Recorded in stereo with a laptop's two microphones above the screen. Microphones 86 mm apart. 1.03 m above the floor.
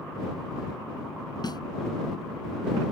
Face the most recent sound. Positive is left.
turn(degrees=55)  # may be behind; listen again after turning